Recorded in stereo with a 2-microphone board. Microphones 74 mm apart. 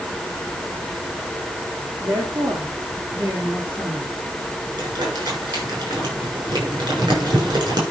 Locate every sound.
2.0 s a woman speaking: 40° right (ahead or behind), 3.5 m; by 4.2 s 20° right (ahead or behind), 4.5 m
4.8 s crumpling: 60° right (ahead or behind), 7.5 m